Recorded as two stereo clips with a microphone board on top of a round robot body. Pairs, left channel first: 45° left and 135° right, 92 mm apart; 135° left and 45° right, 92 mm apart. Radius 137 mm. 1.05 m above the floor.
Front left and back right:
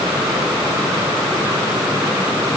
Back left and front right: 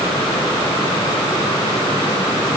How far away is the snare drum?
No snare drum in this recording.